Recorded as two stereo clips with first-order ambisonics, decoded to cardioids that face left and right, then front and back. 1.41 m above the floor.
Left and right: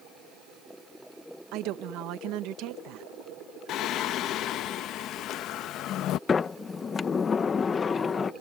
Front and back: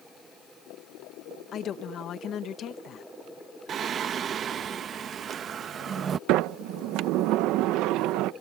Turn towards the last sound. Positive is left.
turn(degrees=160)